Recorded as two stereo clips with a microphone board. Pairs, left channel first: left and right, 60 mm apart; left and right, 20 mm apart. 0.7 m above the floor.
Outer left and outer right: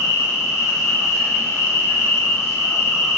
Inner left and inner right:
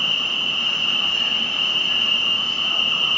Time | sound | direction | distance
0.0 | an insect | 60° left (ahead or behind) | 1.0 m